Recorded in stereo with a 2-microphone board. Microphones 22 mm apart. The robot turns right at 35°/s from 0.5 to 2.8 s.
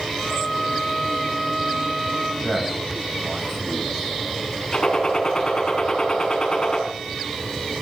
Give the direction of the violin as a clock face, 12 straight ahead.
6 o'clock.